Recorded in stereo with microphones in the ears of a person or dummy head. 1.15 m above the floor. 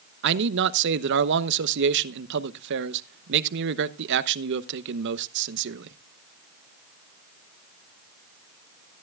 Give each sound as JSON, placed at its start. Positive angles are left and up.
{"t": 0.2, "sound": "a man speaking", "side_deg": -55, "distance_m": 0.8}